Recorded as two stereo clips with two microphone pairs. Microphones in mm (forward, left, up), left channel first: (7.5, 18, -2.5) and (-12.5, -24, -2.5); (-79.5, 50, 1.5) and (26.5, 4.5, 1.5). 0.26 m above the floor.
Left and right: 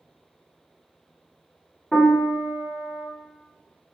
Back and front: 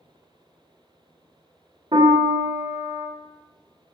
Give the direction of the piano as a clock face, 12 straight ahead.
12 o'clock.